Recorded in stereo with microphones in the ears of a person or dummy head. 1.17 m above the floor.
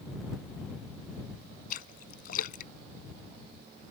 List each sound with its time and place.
1.7 s a splash: 50° left (ahead or behind)